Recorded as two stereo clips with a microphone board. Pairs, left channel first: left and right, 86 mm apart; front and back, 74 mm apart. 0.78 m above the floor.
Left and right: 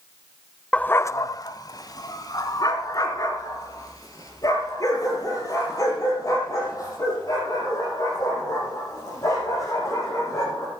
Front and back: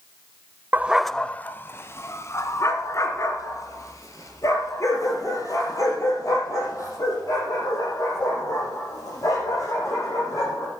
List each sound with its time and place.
0.7 s a dog barking: 155° left, 0.5 m; by 10.7 s 40° left, 10 m